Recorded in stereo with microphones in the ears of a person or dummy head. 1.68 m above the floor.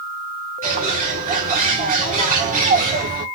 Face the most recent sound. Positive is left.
turn(degrees=-35)  # may be behind; listen again after turning